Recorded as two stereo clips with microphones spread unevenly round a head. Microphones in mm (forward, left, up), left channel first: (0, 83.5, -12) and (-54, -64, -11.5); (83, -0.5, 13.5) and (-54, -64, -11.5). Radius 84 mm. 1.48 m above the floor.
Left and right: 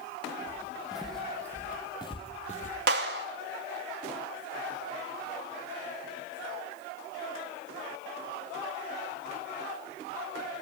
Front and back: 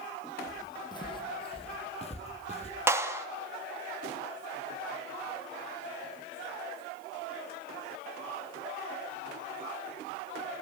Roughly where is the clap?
Right.